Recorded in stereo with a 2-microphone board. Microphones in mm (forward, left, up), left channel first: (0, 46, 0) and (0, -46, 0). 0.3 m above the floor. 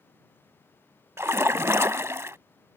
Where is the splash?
30° right (ahead or behind).